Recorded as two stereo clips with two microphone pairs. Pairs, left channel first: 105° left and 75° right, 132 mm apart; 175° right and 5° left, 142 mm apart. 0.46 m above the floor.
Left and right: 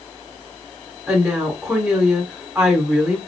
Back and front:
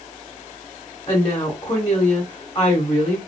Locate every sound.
1.1 s a woman speaking: 150° right, 1.4 m